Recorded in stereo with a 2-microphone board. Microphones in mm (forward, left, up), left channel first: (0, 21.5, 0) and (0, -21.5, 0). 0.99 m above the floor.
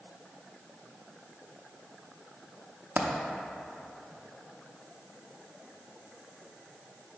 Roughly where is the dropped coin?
Right.